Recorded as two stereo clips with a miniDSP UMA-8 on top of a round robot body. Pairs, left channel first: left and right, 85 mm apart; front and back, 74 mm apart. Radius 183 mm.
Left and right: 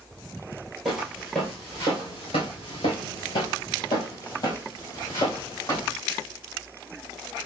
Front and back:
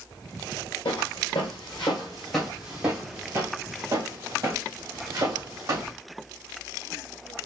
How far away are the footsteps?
About 0.9 m.